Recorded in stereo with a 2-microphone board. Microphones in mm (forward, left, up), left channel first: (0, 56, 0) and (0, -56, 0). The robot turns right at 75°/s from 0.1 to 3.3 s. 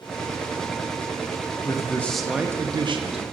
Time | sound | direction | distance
1.6 | a man speaking | 140° left | 0.6 m